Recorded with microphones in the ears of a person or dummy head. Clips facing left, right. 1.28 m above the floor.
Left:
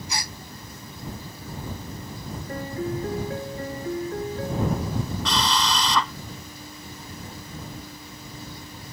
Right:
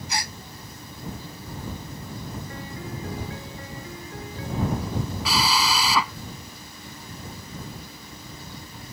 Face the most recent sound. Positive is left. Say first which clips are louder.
# right 1 dB
turn(degrees=-5)  # may be behind; listen again after turning